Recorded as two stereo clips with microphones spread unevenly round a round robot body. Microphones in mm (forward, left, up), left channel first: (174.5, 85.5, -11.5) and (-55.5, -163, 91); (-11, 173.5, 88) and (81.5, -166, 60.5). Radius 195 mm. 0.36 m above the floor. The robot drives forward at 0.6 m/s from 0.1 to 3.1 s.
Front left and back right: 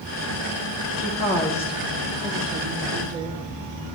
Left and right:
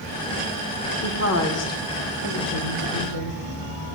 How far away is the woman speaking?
About 1.2 m.